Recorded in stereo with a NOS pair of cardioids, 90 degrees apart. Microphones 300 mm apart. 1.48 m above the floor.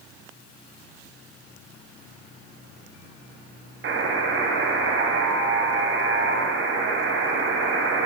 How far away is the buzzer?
About 0.6 m.